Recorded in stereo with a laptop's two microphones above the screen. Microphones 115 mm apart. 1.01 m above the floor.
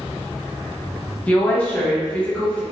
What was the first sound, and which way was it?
A woman speaking, 10° left (ahead or behind).